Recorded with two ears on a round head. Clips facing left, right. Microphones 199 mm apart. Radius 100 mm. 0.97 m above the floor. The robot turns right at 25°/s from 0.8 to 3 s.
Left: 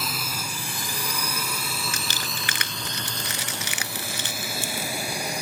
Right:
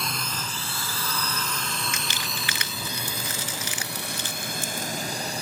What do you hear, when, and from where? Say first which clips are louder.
0.0 s a drone: even; 5° left (ahead or behind); by 5.4 s 10° left (ahead or behind)
1.9 s crumpling: left 1 dB; 30° left (ahead or behind); by 4.9 s 55° left (ahead or behind)